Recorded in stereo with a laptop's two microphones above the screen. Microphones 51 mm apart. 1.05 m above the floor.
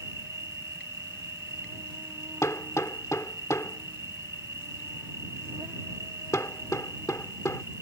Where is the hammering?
85° left.